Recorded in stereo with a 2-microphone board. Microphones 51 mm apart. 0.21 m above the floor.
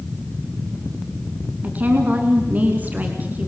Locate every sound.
1.6 s a woman speaking: 35° right (ahead or behind), 2.5 m